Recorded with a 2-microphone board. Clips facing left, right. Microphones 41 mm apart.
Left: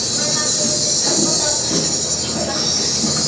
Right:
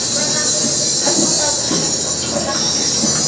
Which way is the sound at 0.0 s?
55° right (ahead or behind).